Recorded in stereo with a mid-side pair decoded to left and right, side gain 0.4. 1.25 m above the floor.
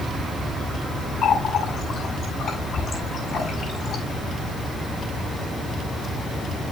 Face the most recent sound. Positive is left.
turn(degrees=60)